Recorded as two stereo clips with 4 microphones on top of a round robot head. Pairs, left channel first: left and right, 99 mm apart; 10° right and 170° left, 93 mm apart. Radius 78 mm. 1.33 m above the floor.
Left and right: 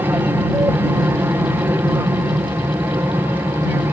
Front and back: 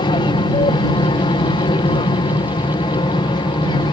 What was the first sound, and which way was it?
An aircraft, 25° right.